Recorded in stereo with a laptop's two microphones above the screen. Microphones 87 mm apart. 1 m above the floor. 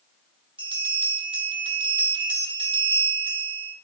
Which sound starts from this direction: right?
A bell, at 0.6 s.